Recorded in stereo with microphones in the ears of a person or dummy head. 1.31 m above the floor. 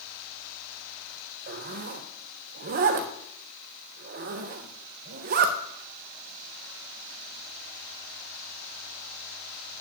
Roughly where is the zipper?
Right.